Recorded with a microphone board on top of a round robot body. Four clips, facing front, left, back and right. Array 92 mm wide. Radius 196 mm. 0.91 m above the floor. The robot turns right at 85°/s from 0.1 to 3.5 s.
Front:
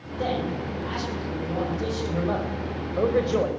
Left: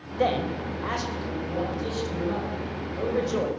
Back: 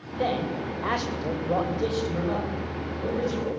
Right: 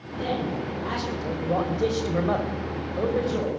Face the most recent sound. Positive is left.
turn(degrees=25)